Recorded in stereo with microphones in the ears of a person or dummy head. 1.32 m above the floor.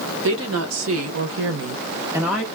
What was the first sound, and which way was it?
A woman speaking, 75° right (ahead or behind).